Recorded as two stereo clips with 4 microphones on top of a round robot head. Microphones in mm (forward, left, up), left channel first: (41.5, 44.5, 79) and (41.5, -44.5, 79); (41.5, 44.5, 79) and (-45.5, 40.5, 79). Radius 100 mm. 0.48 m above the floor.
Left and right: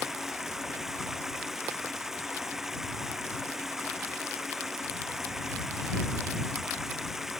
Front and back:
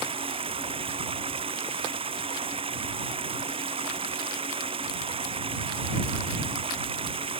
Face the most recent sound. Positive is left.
turn(degrees=-175)